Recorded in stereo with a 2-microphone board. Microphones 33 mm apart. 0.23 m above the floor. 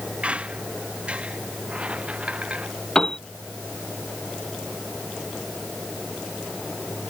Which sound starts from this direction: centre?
A piano, at 3.0 s.